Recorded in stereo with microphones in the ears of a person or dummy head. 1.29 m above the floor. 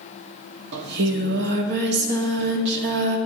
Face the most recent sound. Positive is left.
turn(degrees=-60)  # may be behind; listen again after turning